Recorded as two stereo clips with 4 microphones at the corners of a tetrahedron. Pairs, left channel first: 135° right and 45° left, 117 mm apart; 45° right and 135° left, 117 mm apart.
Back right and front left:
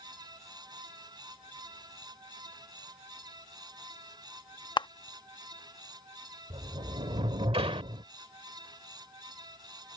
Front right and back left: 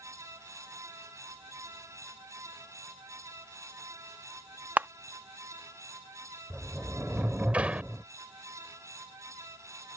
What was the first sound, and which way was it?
A camera shutter, 155° right.